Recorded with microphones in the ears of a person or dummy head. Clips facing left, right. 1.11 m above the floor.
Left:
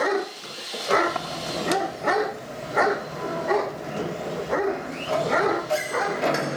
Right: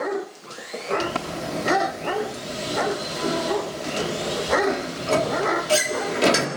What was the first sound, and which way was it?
A sliding door, 45° right (ahead or behind).